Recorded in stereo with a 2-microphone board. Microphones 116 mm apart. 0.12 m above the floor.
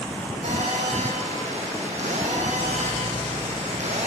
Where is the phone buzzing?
80° right, 4 m.